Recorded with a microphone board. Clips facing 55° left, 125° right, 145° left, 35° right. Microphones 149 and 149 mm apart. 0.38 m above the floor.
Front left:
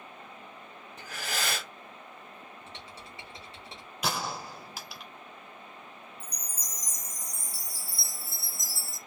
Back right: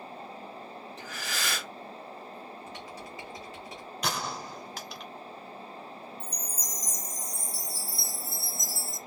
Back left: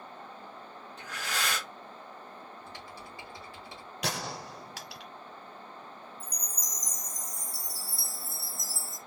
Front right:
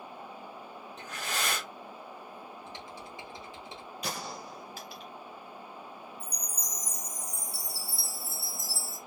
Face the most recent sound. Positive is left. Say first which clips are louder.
# back right 5 dB, front right 1 dB
turn(degrees=-70)